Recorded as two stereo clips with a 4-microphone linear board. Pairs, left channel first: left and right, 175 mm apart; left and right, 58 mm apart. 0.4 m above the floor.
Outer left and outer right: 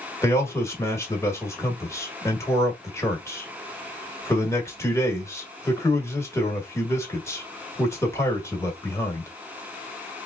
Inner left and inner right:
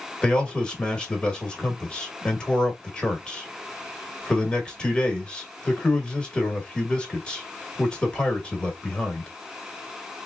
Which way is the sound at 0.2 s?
15° left (ahead or behind).